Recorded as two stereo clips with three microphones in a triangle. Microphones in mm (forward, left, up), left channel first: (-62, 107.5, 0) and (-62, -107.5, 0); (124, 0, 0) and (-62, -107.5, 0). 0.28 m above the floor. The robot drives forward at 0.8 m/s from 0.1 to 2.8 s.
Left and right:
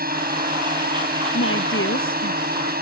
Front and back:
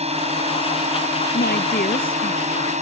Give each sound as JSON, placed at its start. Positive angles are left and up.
{"t": 0.0, "sound": "a drone", "azimuth_deg": -105}
{"t": 1.3, "sound": "a woman speaking", "azimuth_deg": 70}